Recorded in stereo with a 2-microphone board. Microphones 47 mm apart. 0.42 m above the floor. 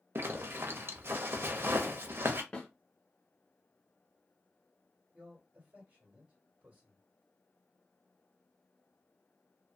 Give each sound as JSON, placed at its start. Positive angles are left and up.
{"t": 0.1, "sound": "a zipper", "side_deg": -55, "distance_m": 0.6}
{"t": 2.5, "sound": "a snare drum", "side_deg": 20, "distance_m": 1.0}
{"t": 5.1, "sound": "a man speaking", "side_deg": -30, "distance_m": 1.4}